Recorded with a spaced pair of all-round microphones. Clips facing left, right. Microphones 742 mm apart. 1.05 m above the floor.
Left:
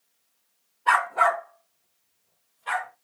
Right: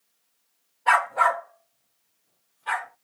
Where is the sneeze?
No sneeze in this recording.